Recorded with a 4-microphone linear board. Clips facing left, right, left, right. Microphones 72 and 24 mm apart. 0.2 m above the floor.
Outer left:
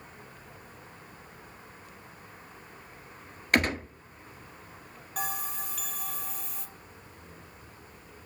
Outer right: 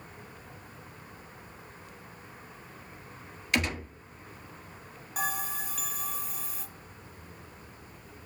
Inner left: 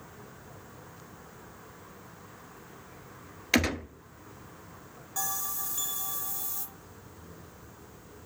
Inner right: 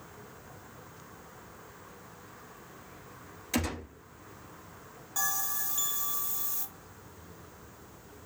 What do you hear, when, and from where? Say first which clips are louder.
3.5 s a gunshot: outer left 4 dB, inner left 6 dB; 45° left (ahead or behind), 1.0 m
5.2 s a bell: outer right 2 dB, inner right 2 dB; 5° right (ahead or behind), 1.5 m